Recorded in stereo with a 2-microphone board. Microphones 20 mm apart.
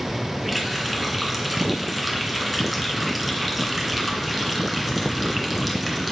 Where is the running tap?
10° right (ahead or behind), 2.5 m.